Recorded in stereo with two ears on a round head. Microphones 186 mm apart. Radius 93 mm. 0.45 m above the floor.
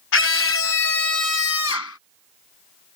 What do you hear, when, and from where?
0.1 s a scream: 60° left (ahead or behind); by 2.0 s 75° left (ahead or behind)